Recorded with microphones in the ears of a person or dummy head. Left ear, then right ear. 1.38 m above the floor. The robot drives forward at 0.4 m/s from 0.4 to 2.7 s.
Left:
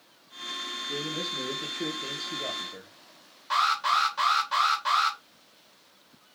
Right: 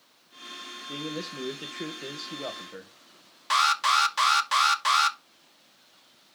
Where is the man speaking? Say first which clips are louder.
Left 1 dB; 35° right (ahead or behind), 1.8 m; by 2.9 s 50° right (ahead or behind), 1.3 m.